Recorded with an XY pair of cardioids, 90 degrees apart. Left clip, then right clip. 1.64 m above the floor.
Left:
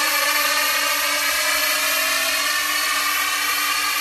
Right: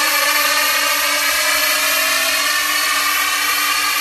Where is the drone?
35° right.